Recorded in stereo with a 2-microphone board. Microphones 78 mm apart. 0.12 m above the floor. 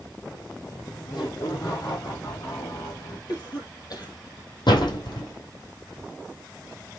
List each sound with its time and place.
0.6 s laughter: 55° left (ahead or behind), 4.5 m; by 3.2 s 65° left (ahead or behind), 6 m
3.3 s a cough: 60° left (ahead or behind), 3.5 m
4.7 s a door slam: 75° left (ahead or behind), 3 m